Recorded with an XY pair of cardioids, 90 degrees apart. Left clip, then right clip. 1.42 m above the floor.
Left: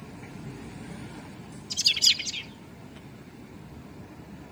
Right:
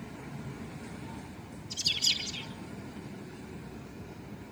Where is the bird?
70° left, 2.5 m.